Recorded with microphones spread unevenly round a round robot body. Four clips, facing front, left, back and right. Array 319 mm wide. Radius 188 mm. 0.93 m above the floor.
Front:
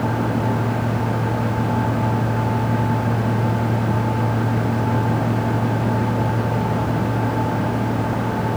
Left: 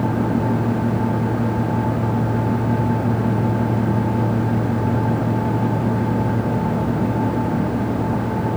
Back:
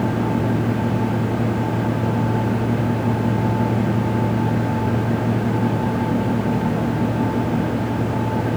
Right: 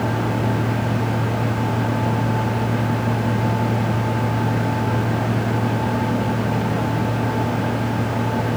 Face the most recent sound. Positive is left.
No sound to turn to.